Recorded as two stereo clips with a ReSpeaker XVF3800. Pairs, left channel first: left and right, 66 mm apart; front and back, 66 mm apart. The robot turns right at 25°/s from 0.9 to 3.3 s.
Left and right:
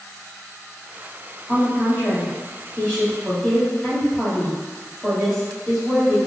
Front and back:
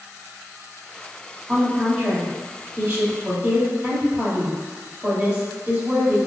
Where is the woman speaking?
120° left, 1.6 m; by 6.2 s 165° left, 1.6 m.